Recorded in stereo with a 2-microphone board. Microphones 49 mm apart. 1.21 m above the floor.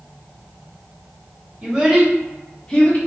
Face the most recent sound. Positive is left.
turn(degrees=30)  # may be behind; listen again after turning